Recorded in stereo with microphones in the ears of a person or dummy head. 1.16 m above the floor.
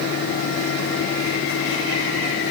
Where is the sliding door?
I don't hear a sliding door.